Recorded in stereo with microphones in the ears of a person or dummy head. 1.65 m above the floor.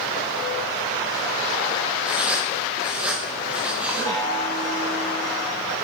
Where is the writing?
5° right (ahead or behind), 0.9 m.